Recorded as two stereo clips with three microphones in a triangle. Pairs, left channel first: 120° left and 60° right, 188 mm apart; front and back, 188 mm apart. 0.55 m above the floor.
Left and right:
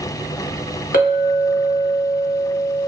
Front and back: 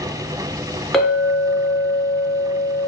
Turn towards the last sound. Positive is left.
turn(degrees=90)